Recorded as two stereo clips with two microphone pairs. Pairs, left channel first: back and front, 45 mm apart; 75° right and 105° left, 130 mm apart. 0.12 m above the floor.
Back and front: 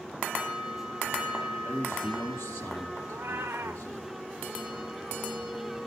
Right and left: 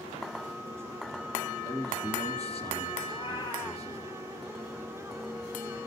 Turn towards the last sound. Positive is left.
turn(degrees=35)